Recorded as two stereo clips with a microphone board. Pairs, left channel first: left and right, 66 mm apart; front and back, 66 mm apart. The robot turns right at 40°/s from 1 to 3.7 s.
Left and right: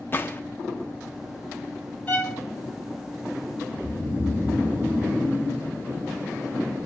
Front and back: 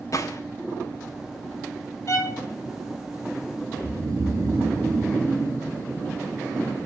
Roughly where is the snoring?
Behind right.